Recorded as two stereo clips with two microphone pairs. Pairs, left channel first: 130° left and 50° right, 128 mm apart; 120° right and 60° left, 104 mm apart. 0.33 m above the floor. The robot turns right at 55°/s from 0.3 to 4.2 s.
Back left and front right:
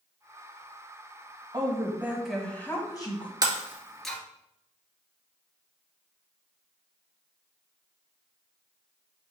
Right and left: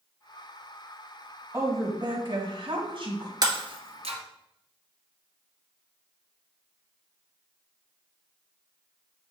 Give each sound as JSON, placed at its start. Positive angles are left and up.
{"t": 1.5, "sound": "a woman speaking", "azimuth_deg": 0, "distance_m": 1.7}
{"t": 3.4, "sound": "breaking glass", "azimuth_deg": 10, "distance_m": 1.2}